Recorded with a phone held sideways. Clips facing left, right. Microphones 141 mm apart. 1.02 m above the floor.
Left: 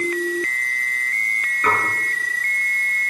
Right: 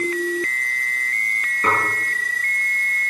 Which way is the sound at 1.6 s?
30° right (ahead or behind).